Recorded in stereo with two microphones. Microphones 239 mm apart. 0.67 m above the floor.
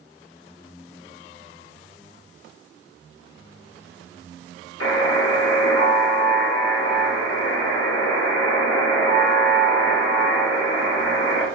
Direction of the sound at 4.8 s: 70° left (ahead or behind).